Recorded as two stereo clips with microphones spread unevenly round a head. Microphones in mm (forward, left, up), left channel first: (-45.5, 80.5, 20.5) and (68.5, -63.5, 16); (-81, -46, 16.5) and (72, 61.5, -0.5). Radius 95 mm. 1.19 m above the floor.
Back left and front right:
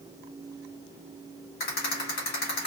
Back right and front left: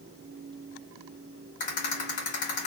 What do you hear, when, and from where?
1.6 s a rattle: 170° left, 2.5 m